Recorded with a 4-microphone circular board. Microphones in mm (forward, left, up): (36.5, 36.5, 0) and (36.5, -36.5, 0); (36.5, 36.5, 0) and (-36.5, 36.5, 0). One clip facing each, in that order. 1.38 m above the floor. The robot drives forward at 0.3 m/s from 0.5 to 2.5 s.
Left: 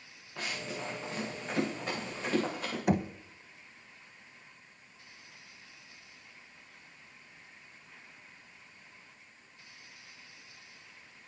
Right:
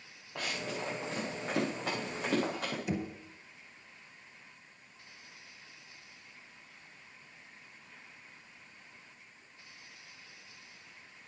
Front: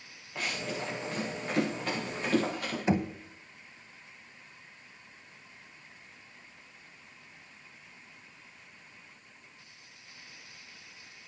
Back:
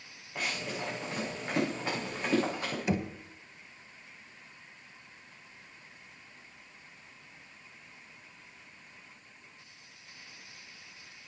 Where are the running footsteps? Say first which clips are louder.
Right 1 dB, front 1 dB; 100° right, 6 m; by 2.8 s 115° right, 7.5 m.